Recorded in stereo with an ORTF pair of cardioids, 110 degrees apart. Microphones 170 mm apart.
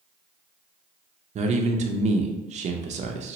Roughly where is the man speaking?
Ahead right.